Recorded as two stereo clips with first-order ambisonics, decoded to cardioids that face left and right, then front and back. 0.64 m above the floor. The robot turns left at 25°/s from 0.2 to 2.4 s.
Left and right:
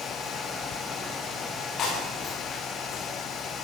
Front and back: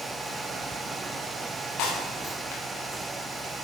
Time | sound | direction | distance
1.8 | breaking glass | 30° left | 10 m